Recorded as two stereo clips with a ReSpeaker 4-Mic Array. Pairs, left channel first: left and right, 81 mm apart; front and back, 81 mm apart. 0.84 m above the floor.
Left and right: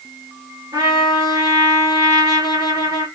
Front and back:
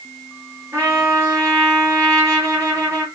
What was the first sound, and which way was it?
A trumpet, 125° right.